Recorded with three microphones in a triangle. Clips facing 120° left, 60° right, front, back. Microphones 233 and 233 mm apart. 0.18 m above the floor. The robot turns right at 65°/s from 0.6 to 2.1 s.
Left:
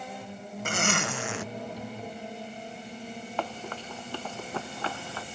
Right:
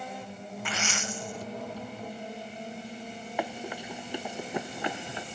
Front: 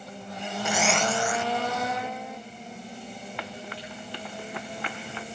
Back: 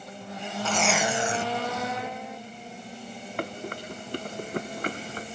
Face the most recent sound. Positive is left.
turn(degrees=-130)